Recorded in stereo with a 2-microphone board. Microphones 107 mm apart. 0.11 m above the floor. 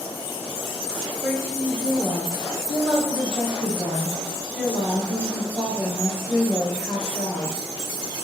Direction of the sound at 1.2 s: 5° right (ahead or behind).